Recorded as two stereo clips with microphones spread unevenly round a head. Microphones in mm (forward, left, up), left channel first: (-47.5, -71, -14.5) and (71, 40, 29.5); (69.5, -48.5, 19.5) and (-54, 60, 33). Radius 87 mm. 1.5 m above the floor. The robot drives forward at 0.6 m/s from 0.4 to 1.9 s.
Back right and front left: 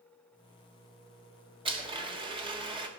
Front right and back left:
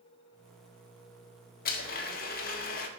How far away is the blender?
About 1.8 m.